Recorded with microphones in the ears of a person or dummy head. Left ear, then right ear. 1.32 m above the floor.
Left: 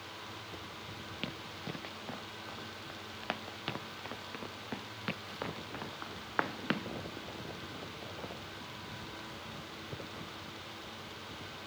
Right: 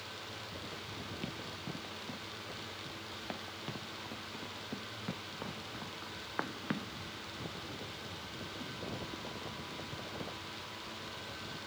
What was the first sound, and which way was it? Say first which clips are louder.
Running footsteps: left 1 dB; 45° left (ahead or behind).